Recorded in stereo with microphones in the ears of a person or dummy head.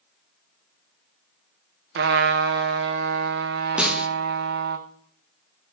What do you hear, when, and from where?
1.9 s a trumpet: 60° right (ahead or behind), 0.8 m
3.8 s a snare drum: 5° right (ahead or behind), 0.7 m